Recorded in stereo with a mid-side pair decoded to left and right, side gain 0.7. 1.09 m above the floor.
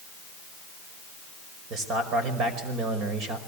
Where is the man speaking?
50° right, 5 m.